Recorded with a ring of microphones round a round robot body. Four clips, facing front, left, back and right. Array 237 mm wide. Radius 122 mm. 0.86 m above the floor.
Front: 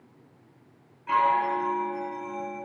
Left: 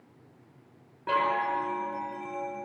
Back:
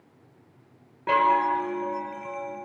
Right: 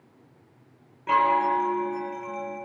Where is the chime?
170° left, 6.5 m.